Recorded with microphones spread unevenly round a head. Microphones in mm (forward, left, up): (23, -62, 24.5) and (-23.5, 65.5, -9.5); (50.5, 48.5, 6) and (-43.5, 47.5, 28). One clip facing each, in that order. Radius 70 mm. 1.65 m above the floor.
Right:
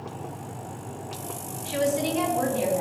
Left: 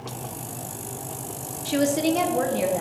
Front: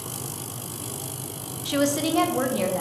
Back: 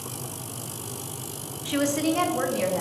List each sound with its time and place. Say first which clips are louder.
1.6 s a woman speaking: left 3 dB, front 1 dB; 70° left, 0.7 m; by 2.8 s 85° left, 1.7 m